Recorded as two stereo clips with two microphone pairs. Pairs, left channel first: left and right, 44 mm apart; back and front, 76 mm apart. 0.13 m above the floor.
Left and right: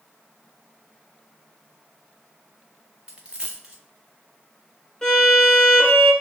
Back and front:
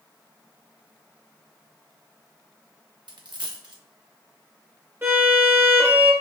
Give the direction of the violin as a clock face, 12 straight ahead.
11 o'clock.